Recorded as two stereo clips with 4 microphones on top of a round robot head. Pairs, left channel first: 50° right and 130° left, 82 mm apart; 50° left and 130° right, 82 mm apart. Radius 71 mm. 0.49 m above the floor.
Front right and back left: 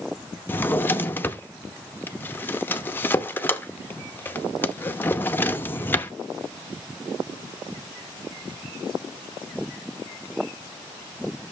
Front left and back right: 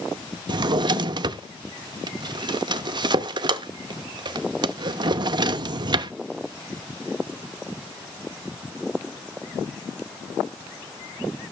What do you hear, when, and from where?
0.5 s a drawer: 115° right, 0.7 m